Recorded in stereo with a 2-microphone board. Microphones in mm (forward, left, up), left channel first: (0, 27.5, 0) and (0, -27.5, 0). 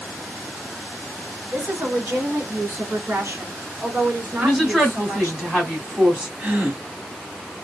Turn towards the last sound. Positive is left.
turn(degrees=-25)  # may be behind; listen again after turning